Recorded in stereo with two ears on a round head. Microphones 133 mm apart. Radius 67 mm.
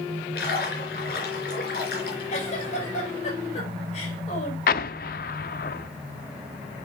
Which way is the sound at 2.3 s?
50° left (ahead or behind).